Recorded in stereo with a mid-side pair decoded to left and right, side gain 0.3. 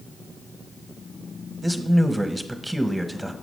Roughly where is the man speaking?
Ahead.